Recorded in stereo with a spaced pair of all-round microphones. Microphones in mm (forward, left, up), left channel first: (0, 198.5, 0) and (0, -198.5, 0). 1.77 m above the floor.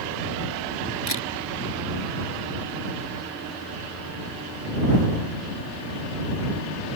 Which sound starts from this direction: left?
A camera shutter, at 1.1 s.